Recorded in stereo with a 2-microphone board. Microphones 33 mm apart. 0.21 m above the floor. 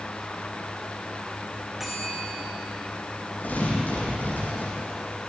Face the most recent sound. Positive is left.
turn(degrees=70)  # may be behind; listen again after turning